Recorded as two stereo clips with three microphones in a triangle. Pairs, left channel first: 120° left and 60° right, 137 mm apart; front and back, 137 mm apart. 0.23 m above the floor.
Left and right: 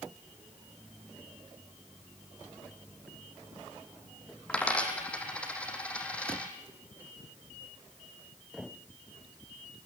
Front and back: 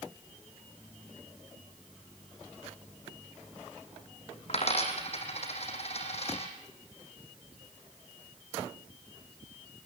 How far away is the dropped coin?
About 3.5 m.